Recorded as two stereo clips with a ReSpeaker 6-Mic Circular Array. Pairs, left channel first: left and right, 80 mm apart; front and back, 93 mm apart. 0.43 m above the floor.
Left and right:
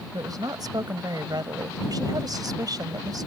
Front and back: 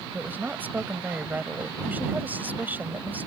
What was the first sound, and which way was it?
A woman speaking, 115° right.